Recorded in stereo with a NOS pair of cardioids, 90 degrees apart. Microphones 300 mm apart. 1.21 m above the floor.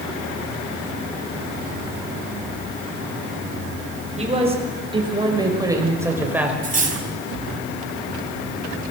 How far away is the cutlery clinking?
About 4.5 m.